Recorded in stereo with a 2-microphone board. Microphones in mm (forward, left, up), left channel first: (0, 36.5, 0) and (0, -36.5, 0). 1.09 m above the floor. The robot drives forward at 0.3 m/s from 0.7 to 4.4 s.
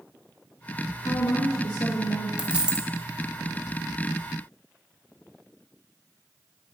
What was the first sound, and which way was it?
A woman speaking, 55° left (ahead or behind).